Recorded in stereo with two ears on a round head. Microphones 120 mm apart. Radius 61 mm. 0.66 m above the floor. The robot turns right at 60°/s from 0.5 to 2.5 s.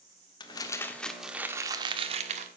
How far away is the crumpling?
About 1.6 m.